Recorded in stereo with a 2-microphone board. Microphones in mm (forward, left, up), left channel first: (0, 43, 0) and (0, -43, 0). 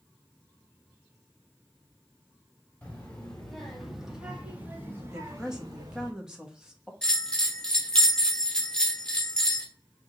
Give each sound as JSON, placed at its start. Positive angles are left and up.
{"t": 2.8, "sound": "a child speaking", "side_deg": 15, "distance_m": 2.0}
{"t": 5.1, "sound": "a woman speaking", "side_deg": -10, "distance_m": 1.0}
{"t": 7.0, "sound": "a bell", "side_deg": 5, "distance_m": 1.1}